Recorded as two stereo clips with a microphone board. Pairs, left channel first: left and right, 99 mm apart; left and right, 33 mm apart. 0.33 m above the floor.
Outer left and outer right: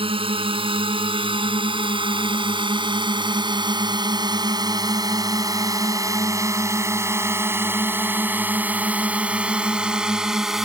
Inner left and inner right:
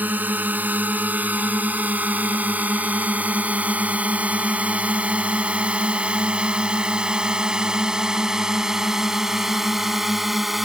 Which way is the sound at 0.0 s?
65° right (ahead or behind).